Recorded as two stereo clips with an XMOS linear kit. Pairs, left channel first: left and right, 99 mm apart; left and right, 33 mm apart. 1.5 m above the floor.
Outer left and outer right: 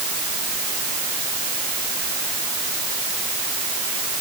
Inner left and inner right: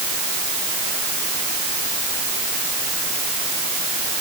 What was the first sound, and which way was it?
Only background noise.